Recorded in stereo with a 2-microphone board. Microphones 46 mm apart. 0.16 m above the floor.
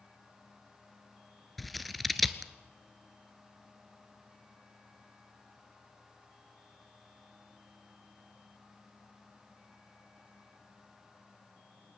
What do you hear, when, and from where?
1.6 s scissors: centre (ahead or behind), 0.9 m